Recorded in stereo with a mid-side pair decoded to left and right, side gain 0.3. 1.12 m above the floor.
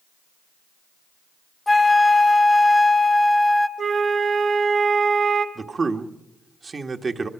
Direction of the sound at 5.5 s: 50° right.